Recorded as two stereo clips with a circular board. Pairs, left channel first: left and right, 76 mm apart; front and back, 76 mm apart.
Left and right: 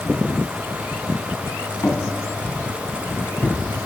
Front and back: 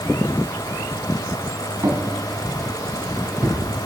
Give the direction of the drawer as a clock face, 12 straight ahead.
7 o'clock.